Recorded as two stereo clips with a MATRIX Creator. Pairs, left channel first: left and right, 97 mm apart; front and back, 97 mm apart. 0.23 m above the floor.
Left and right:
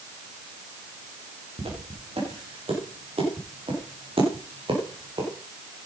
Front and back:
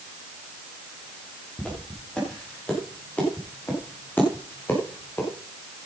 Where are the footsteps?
80° right, 8.5 m; by 5.3 s 65° right, 6.5 m.